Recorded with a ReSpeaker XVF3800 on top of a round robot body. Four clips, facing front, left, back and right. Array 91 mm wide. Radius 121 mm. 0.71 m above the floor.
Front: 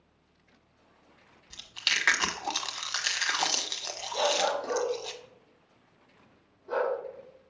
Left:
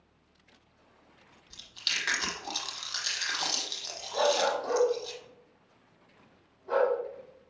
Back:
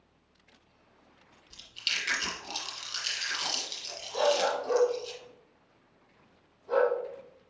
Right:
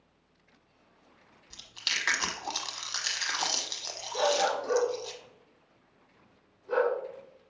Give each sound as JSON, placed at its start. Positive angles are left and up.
{"t": 1.5, "sound": "chewing", "azimuth_deg": -10, "distance_m": 1.2}
{"t": 4.1, "sound": "a dog barking", "azimuth_deg": 95, "distance_m": 3.0}